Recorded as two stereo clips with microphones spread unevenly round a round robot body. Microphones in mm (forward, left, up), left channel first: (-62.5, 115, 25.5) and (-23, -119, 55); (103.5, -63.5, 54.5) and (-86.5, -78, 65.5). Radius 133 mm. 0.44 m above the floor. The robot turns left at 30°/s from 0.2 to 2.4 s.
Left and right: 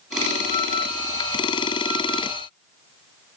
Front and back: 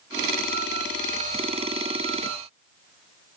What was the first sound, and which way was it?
Only background noise.